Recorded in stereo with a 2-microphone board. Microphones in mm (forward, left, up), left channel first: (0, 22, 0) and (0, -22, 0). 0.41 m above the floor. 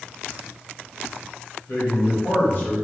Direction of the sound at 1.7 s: 55° left (ahead or behind).